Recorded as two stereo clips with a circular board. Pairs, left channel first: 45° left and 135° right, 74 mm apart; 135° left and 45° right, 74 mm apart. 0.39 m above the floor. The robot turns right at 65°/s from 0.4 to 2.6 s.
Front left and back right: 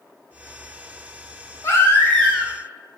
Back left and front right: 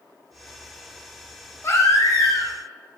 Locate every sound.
1.6 s a baby crying: 85° left, 1.9 m; by 2.5 s 145° left, 1.9 m